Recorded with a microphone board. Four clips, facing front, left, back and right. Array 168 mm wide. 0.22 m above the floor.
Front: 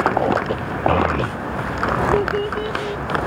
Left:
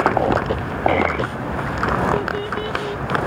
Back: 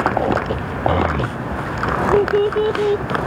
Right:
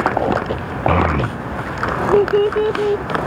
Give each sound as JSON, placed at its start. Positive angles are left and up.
{"t": 0.9, "sound": "a child speaking", "azimuth_deg": -70}